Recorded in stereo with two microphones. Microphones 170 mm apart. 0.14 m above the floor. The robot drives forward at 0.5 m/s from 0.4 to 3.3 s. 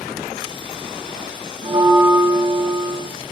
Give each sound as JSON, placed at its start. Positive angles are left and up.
{"t": 1.6, "sound": "a bell", "side_deg": -30, "distance_m": 0.9}